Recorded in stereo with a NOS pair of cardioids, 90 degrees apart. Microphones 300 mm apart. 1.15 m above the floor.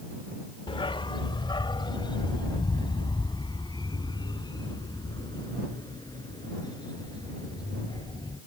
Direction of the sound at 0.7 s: 20° left.